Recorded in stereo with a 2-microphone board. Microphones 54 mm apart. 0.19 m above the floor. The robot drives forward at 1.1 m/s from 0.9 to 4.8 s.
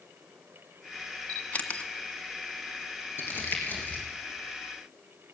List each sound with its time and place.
1.3 s a camera shutter: 30° left (ahead or behind), 1.8 m; by 1.9 s 25° left (ahead or behind), 2 m
3.2 s crumpling: 45° left (ahead or behind), 4 m; by 4.0 s 35° left (ahead or behind), 5 m